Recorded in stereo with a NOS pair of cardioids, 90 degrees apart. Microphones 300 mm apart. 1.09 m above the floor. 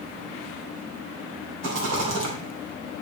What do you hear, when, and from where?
1.6 s a rattle: 60° right, 2.5 m